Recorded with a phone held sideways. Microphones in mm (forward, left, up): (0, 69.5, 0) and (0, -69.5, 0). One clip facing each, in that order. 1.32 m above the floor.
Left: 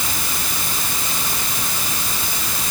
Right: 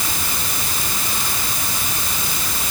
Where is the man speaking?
I don't hear a man speaking.